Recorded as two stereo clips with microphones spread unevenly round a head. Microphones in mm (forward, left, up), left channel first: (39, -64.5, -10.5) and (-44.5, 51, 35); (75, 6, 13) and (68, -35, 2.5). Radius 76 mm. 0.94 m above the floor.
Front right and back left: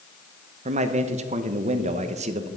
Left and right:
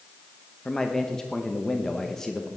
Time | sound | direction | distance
0.7 | a man speaking | 170° left | 0.8 m